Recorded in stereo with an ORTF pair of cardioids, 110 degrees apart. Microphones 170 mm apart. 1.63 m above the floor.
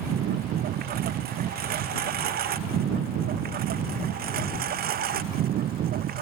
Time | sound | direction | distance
0.0 | a lawn mower | 65° right | ?